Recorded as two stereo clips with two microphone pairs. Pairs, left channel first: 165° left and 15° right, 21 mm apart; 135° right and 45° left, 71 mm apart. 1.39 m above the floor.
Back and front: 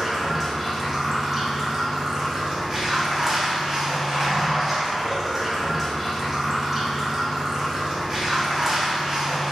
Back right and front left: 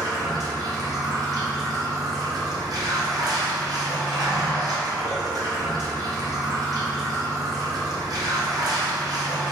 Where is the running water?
60° left, 0.9 m.